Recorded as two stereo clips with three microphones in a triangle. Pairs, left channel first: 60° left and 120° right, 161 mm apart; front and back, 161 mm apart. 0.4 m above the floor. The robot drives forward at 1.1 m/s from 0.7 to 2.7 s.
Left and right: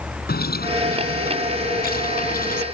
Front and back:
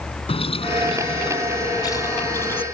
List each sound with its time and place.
0.3 s a bird: 55° left; by 2.6 s 80° left